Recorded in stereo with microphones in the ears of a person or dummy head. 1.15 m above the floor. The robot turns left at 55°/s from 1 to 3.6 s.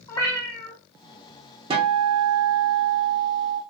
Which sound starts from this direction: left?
A cat meowing, at 0.1 s.